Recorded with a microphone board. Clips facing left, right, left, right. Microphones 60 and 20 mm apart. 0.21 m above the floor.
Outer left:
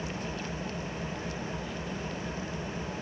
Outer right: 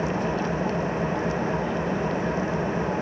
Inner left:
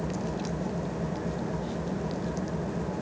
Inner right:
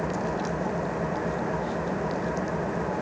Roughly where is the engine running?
Right.